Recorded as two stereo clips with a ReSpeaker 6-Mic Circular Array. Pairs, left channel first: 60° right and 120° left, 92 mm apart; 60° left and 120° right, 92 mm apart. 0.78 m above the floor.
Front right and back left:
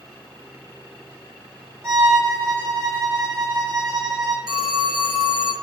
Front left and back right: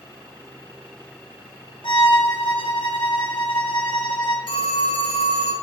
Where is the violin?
65° left, 2.0 m.